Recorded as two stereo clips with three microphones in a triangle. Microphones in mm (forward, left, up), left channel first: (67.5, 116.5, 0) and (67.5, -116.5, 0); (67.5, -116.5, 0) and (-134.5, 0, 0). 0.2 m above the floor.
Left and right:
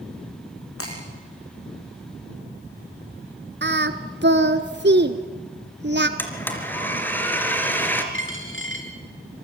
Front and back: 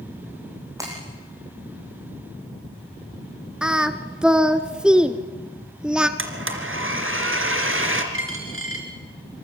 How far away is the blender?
About 3 m.